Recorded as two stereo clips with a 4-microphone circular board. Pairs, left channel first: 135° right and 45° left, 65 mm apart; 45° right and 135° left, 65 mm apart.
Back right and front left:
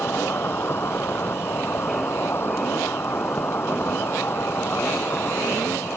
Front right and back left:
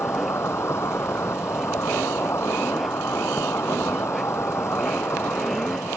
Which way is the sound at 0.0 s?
85° right.